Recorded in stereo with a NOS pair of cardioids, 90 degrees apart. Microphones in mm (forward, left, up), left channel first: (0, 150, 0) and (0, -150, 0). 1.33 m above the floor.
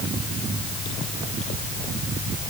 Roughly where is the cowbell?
I don't hear a cowbell.